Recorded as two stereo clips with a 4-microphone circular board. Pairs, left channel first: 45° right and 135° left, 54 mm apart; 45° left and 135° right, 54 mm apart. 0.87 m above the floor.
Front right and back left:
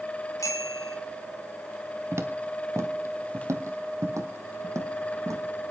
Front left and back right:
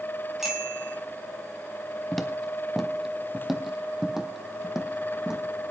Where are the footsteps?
135° left, 1.4 m; by 5.7 s 150° left, 3 m.